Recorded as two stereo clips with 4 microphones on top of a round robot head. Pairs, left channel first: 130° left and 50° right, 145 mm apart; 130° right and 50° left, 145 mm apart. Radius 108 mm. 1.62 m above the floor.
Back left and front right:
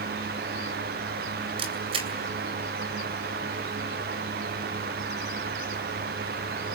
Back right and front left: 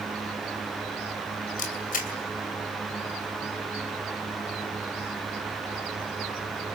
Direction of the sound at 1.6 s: 105° right.